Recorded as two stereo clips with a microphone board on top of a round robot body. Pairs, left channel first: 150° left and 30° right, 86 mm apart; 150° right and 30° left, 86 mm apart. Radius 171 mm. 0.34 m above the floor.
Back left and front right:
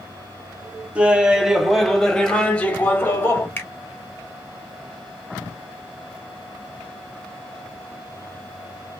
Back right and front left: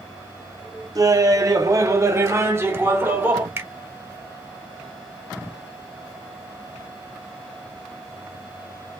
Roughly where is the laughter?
Ahead left.